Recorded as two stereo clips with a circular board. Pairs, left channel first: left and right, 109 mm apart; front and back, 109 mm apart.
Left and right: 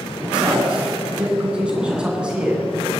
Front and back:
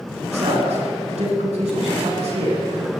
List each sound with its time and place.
0.3 s a man speaking: 170° right, 9.5 m